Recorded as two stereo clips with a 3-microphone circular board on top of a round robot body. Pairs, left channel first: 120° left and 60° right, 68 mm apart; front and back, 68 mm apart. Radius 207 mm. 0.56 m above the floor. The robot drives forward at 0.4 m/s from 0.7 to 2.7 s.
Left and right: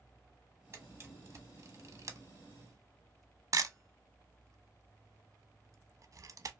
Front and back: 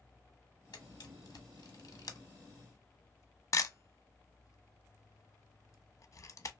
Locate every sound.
0.7 s a camera shutter: 15° right, 1.3 m; by 6.5 s 35° right, 0.7 m